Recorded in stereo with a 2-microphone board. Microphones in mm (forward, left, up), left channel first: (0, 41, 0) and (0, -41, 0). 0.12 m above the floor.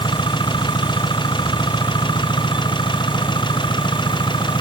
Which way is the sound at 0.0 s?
70° left (ahead or behind).